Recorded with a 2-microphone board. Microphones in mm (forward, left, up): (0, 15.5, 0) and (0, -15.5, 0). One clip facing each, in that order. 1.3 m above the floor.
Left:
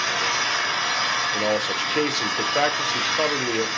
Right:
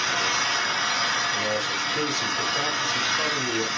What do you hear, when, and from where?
0.0 s an engine running: 10° left (ahead or behind), 1.1 m
1.3 s a man speaking: 60° left (ahead or behind), 0.9 m